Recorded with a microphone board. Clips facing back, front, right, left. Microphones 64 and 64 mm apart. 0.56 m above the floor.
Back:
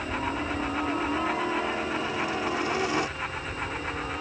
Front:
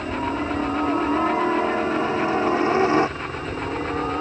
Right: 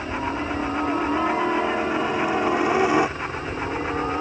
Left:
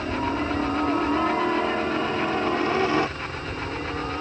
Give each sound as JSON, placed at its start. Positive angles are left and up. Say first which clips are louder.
{"t": 0.0, "sound": "a helicopter", "louder": "front 5 dB, left 1 dB", "azimuth_deg": 15}